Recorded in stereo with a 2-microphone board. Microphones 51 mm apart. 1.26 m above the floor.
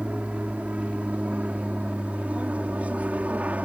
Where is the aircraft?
25° right (ahead or behind); by 3.6 s 30° right (ahead or behind).